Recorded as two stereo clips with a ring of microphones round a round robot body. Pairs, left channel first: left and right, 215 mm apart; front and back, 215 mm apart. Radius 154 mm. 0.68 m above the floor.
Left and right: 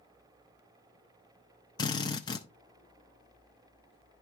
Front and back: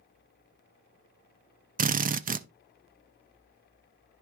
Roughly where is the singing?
No singing in this recording.